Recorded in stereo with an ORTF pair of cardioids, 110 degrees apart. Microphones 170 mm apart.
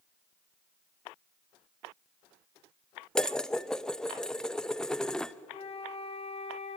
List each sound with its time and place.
3.1 s dishes clattering: 5° left, 0.6 m
5.5 s a flute: 35° left, 1.3 m